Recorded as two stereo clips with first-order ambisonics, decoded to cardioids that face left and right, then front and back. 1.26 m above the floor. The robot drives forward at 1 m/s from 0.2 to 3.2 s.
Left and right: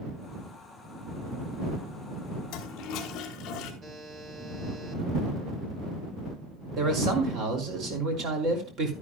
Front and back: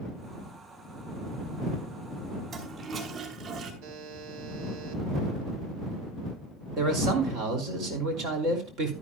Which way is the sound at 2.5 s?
115° left.